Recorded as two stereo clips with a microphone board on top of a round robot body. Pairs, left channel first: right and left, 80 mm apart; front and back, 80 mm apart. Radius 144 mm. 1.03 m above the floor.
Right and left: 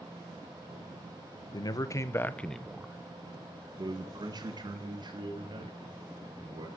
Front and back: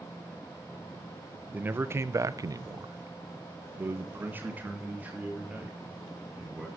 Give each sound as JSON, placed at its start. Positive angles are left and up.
{"t": 1.5, "sound": "a man speaking", "azimuth_deg": -115, "distance_m": 1.4}